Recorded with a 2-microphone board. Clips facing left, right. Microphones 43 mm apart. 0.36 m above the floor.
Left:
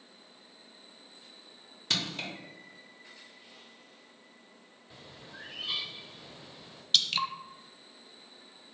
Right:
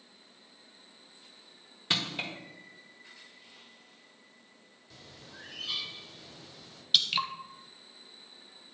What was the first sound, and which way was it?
Crushing, 20° right (ahead or behind).